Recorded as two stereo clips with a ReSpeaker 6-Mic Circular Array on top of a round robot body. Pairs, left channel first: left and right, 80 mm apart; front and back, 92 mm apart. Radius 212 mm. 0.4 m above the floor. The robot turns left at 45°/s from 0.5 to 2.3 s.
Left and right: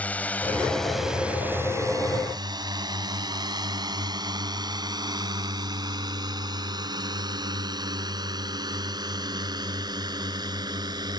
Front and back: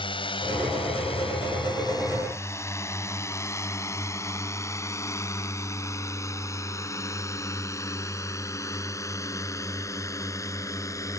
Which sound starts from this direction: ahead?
A drone, at 0.0 s.